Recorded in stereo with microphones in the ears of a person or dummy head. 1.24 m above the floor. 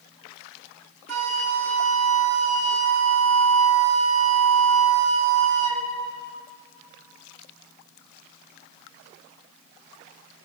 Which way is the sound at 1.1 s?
85° right.